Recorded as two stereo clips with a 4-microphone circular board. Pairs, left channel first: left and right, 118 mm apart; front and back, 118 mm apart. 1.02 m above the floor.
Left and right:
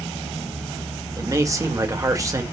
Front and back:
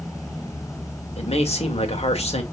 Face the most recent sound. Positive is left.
turn(degrees=-30)